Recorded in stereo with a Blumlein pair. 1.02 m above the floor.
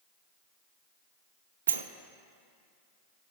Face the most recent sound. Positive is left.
turn(degrees=-70)